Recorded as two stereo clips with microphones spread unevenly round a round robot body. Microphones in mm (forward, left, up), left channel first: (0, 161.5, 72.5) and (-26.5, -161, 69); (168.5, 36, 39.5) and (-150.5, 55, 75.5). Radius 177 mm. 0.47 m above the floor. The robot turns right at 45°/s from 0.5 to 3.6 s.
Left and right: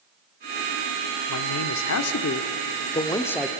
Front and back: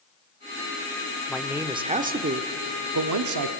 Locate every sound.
1.3 s a man speaking: 80° left, 1.3 m; by 3.5 s straight behind, 1.3 m